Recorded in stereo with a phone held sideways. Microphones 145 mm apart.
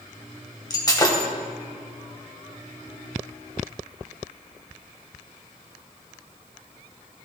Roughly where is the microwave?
No microwave in this recording.